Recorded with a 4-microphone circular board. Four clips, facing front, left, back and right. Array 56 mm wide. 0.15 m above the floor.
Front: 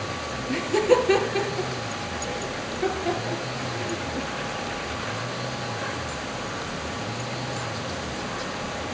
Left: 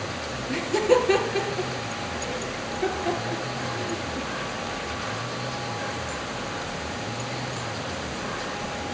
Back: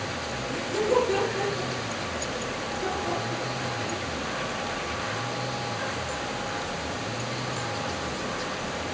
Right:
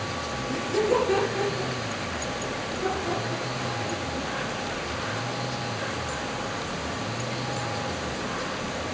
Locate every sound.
0.5 s laughter: 40° left, 2.5 m